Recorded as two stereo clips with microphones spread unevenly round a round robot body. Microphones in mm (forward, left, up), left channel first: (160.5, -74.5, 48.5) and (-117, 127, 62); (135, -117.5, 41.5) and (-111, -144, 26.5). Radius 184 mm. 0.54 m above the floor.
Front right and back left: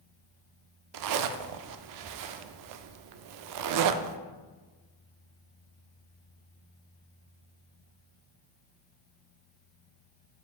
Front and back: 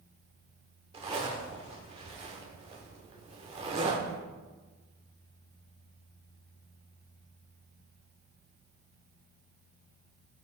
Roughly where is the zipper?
Behind left.